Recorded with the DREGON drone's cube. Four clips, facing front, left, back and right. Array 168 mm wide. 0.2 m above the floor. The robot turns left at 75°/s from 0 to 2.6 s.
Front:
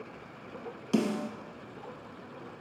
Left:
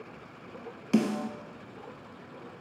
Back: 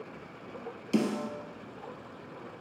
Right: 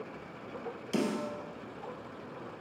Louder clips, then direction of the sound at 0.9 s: Left 5 dB, even; 60° left.